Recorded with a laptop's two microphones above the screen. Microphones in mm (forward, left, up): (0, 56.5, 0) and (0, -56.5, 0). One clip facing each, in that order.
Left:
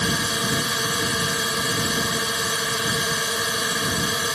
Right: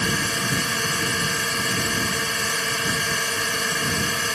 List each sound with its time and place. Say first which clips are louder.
0.0 s a drone: left 1 dB; 10° left (ahead or behind)